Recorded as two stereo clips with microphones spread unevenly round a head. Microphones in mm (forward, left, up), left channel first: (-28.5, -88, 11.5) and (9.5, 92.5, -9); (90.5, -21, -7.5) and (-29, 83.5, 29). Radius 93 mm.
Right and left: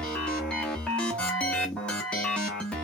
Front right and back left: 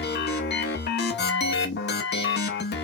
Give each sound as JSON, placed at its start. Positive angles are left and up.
{"t": 0.0, "sound": "a machine running", "azimuth_deg": -15, "distance_m": 0.9}